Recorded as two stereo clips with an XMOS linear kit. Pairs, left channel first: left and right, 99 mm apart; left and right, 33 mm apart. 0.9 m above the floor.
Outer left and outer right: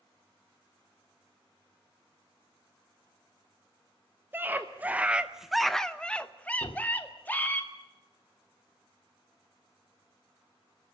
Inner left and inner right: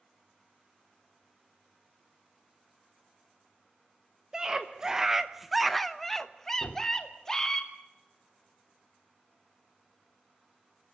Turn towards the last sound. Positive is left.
turn(degrees=60)  # may be behind; listen again after turning